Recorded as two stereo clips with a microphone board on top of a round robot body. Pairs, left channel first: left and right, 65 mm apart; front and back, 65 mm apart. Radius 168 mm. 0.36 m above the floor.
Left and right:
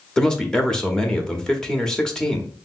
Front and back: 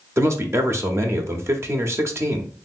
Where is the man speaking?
165° left, 1.0 m.